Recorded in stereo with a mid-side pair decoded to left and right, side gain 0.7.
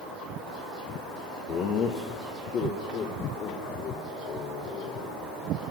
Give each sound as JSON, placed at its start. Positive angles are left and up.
{"t": 1.5, "sound": "laughter", "azimuth_deg": 55, "distance_m": 2.5}